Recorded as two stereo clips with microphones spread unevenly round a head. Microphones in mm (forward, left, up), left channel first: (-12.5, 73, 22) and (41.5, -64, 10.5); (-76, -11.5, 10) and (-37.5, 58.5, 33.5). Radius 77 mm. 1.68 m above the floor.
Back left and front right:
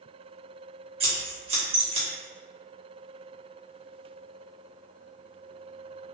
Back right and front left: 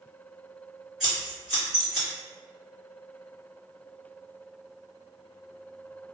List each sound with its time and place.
1.0 s scissors: 20° right, 1.0 m